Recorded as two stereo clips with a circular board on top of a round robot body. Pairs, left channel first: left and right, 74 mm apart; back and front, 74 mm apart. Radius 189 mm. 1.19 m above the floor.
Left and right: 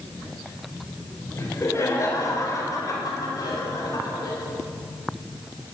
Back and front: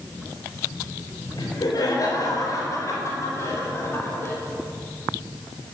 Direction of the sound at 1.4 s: 145° left.